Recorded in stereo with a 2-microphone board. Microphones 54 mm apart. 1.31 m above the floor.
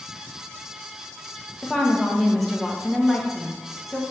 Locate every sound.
1.6 s a woman speaking: centre (ahead or behind), 0.8 m